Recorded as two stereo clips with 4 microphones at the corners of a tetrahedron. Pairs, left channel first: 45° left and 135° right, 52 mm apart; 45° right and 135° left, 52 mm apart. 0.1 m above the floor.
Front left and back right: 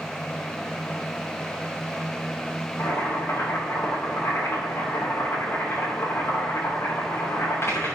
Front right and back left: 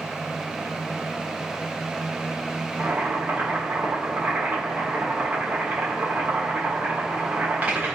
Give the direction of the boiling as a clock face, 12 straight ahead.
9 o'clock.